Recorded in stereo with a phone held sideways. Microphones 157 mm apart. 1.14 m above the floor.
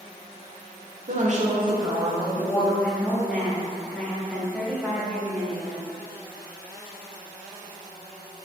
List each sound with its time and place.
1.1 s a woman speaking: 60° right (ahead or behind), 0.6 m; by 2.7 s 20° left (ahead or behind), 0.7 m
2.8 s a woman speaking: 5° left (ahead or behind), 0.6 m